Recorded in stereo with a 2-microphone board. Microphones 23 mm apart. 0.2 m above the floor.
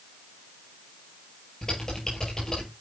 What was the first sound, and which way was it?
Typing on a keyboard, 25° left (ahead or behind).